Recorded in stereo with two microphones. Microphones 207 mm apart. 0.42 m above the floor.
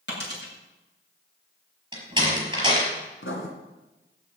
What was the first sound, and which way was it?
A dropped coin, 60° left (ahead or behind).